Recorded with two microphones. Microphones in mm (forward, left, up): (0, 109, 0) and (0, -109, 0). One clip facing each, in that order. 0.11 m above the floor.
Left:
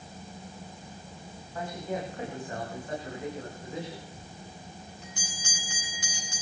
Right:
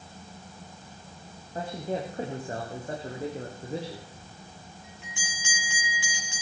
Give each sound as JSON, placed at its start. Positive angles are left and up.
{"t": 1.6, "sound": "a man speaking", "side_deg": -35, "distance_m": 5.5}
{"t": 4.2, "sound": "a bell", "side_deg": 40, "distance_m": 7.0}